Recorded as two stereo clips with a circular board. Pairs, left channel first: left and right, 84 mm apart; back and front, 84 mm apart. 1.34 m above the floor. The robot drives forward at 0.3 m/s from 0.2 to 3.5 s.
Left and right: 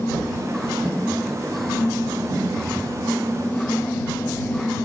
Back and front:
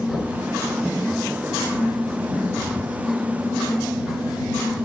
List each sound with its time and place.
0.1 s knocking: 95° right, 5 m